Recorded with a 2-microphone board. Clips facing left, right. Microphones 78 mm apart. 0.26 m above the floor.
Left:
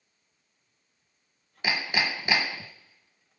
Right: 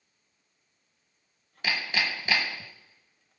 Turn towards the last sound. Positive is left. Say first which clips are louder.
# left 1 dB
turn(degrees=15)  # may be behind; listen again after turning